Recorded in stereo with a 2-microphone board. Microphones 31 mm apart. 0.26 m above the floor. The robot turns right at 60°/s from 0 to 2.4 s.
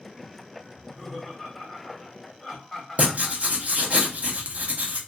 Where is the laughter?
20° right (ahead or behind), 1.0 m; by 3.7 s 5° left (ahead or behind), 1.0 m.